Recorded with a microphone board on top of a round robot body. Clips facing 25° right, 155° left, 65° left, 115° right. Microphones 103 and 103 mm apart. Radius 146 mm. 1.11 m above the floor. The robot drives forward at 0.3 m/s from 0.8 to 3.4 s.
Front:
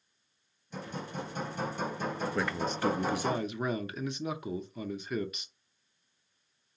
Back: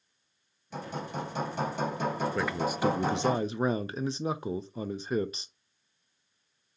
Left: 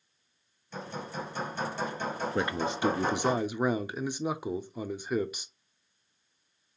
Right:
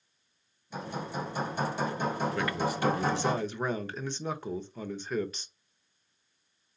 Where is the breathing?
I don't hear breathing.